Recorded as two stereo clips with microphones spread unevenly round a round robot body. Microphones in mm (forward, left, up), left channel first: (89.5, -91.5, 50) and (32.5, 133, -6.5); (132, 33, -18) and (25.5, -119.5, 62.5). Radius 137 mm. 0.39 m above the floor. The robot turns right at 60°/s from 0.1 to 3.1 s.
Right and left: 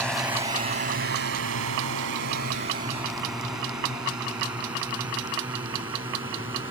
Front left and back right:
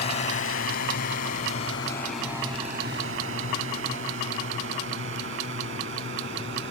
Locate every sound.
0.0 s a drone: 15° left; by 6.7 s straight behind